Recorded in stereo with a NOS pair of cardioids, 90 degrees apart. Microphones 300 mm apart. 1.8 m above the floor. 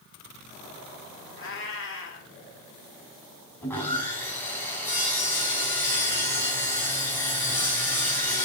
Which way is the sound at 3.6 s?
5° left.